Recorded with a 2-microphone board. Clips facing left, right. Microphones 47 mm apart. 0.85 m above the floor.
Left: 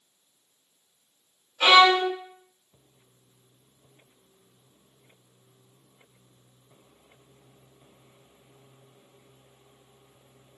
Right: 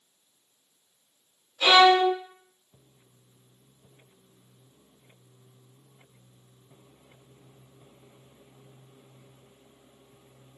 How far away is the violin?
About 0.8 m.